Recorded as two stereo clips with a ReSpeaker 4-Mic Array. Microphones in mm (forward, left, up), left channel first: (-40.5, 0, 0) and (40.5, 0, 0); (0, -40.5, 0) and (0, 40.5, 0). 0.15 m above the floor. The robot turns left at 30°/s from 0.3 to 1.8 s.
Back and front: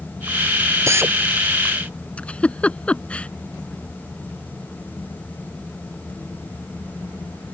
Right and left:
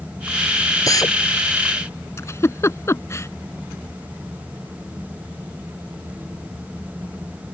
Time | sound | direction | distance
0.9 | a drill | 50° right | ?
2.2 | a giggle | 115° right | ?